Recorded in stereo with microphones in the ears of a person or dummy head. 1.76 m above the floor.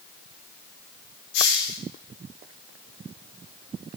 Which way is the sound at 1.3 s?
60° left (ahead or behind).